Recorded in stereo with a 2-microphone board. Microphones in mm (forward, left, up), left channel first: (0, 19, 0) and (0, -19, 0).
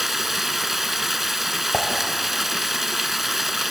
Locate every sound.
0.0 s running water: 5° right (ahead or behind), 0.7 m
1.7 s dishes clattering: 30° left (ahead or behind), 2.5 m